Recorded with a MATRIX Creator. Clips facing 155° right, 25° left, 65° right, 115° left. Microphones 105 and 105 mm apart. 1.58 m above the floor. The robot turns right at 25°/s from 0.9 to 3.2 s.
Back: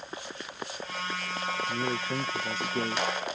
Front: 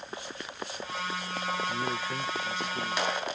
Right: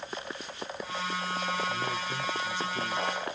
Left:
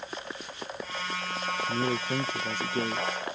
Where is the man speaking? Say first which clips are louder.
Back 1 dB, left 4 dB; 130° left; by 3.1 s 165° left.